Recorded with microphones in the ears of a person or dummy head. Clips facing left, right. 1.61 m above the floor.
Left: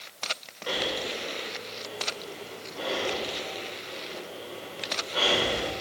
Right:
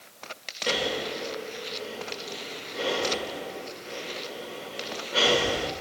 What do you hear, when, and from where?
0.7 s breathing: 45° right (ahead or behind), 1.0 m